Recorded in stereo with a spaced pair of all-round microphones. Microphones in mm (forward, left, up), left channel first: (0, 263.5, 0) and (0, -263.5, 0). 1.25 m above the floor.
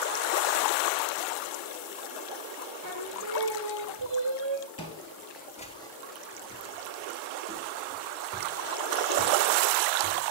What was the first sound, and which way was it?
Singing, 50° right (ahead or behind).